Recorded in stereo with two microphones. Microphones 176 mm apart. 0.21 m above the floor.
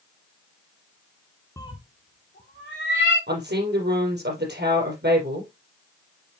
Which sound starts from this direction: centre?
A cat meowing, at 1.6 s.